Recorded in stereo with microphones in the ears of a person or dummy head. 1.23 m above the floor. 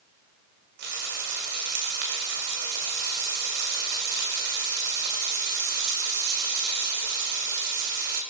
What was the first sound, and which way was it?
Frying, 55° right (ahead or behind).